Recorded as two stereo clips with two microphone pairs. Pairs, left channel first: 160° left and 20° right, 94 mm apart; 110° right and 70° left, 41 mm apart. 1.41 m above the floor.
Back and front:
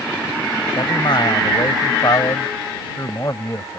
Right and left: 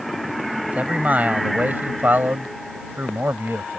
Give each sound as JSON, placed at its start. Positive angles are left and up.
{"t": 0.6, "sound": "a man speaking", "azimuth_deg": 125}